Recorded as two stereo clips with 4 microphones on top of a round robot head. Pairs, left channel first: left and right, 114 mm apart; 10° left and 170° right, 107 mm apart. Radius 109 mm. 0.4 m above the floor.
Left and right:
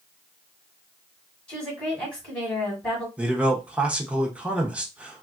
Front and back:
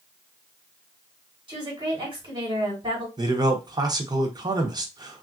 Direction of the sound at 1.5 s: 165° left.